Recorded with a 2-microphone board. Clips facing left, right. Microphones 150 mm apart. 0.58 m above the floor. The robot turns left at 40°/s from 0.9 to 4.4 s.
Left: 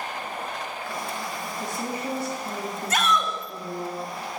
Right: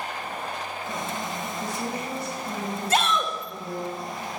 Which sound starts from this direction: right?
A shout, at 2.9 s.